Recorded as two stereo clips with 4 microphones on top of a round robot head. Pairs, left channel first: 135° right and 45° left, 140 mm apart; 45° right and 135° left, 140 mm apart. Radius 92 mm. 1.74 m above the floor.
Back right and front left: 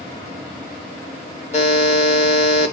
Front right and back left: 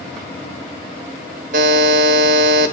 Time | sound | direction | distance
1.5 | a buzzer | 175° left | 0.7 m